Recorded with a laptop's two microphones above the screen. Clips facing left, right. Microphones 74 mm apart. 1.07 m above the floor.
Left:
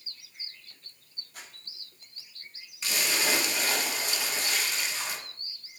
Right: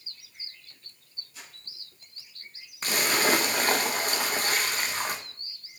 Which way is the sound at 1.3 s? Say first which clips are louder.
Left 1 dB; 50° left (ahead or behind).